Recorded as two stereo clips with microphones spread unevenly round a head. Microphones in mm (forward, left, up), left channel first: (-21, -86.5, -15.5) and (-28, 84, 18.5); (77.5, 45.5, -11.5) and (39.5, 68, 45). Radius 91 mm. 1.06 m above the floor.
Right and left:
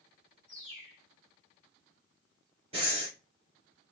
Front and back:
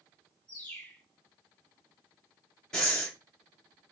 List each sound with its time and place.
0.5 s a bird: 15° left, 5 m
2.7 s breathing: 30° left, 4 m